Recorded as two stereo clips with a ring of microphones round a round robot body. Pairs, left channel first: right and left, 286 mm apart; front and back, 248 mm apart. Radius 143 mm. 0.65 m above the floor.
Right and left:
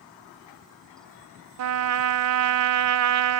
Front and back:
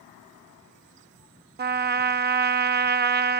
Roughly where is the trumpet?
Behind left.